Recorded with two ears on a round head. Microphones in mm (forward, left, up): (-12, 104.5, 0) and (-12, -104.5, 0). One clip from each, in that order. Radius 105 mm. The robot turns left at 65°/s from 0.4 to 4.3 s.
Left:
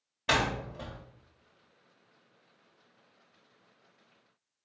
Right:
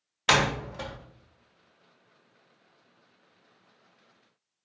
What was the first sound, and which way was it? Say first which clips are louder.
A door slam: right 5 dB; 40° right (ahead or behind).